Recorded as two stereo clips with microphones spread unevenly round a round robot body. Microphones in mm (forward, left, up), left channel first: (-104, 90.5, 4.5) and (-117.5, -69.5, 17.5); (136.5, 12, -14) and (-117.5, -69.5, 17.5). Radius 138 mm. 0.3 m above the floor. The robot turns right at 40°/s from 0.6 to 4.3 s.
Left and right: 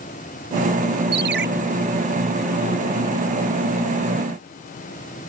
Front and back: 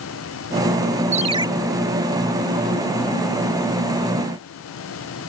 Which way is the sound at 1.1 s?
100° right.